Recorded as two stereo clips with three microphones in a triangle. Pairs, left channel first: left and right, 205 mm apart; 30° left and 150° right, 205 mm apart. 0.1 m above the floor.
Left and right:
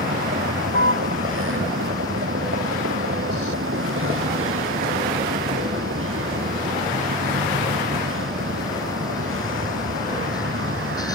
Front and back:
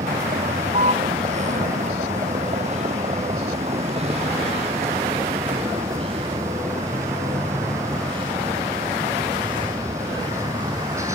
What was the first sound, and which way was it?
A vehicle, 95° right.